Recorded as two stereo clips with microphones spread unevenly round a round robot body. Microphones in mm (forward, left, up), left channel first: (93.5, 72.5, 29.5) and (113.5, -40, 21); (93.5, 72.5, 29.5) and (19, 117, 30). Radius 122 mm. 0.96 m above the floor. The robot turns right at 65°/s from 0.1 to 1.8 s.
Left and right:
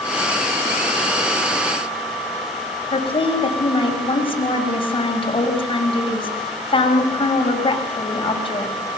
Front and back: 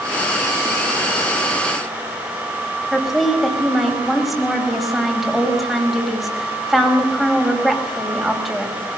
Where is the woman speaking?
60° left, 6 m.